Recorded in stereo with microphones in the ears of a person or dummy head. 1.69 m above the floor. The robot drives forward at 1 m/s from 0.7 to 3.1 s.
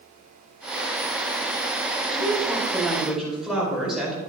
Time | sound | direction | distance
2.1 | a woman speaking | 5° right (ahead or behind) | 4.5 m